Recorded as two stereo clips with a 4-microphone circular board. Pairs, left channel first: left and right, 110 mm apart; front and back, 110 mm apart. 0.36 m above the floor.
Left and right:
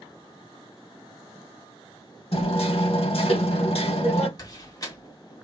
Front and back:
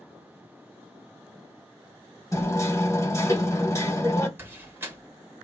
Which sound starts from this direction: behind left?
A door slam, at 4.4 s.